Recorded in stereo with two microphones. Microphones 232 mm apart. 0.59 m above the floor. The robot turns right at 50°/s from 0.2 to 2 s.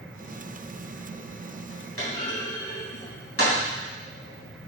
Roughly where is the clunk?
Left.